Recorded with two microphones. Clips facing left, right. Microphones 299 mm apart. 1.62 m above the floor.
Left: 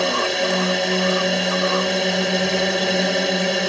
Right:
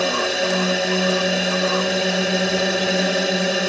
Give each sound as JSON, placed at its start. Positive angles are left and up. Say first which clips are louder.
{"t": 0.0, "sound": "a drone", "louder": "even", "side_deg": 0}